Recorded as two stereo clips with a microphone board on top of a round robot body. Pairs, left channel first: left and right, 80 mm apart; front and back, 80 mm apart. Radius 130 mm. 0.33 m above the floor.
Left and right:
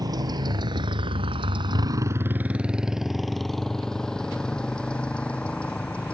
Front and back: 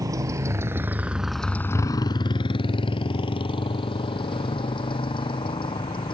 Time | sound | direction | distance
0.0 | a motorcycle | 130° right | ?